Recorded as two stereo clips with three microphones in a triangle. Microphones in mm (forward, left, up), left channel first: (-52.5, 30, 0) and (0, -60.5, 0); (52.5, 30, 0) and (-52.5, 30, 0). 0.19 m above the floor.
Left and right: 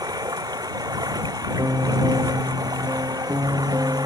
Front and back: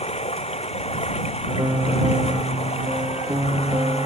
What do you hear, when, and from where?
0.0 s running water: 10° right
1.6 s a piano: 120° right